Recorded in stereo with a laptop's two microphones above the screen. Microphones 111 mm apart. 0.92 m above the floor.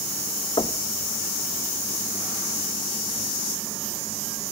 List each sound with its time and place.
0.6 s knocking: 50° left (ahead or behind), 0.8 m